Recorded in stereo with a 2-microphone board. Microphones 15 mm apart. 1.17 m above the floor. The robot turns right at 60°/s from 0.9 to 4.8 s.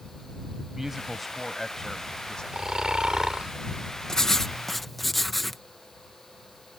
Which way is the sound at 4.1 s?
125° left.